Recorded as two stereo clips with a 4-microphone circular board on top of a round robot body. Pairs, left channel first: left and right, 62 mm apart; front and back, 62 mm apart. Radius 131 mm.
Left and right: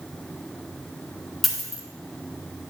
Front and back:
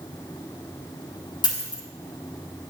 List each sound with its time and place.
1.4 s a dropped coin: straight ahead, 1.5 m